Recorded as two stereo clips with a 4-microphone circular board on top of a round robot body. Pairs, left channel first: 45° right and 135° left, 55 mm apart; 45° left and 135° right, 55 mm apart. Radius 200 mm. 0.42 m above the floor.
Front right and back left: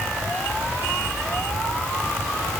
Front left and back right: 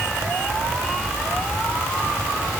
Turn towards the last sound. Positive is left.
No sound to turn to.